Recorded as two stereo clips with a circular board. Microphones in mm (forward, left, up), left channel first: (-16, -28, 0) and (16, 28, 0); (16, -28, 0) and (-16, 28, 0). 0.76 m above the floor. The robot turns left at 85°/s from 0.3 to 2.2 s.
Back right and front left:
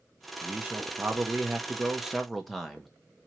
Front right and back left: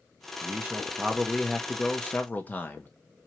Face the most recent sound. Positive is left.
turn(degrees=-35)